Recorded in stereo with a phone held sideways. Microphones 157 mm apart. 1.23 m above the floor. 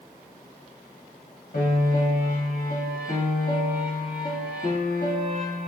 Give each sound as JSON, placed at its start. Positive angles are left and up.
{"t": 1.5, "sound": "a piano", "side_deg": 85, "distance_m": 1.4}